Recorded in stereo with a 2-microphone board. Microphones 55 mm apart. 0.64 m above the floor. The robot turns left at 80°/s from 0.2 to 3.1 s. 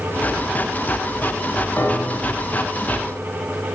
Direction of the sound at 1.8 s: 50° left.